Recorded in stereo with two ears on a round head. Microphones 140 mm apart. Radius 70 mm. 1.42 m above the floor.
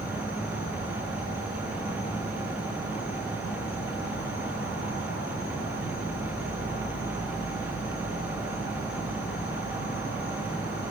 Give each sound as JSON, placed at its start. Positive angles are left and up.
{"t": 0.0, "sound": "an insect", "side_deg": 60, "distance_m": 2.0}